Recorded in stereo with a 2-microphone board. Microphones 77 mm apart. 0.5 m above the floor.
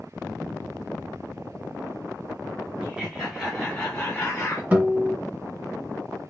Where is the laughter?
15° right (ahead or behind), 1.5 m; by 4.6 s 25° left (ahead or behind), 1.4 m.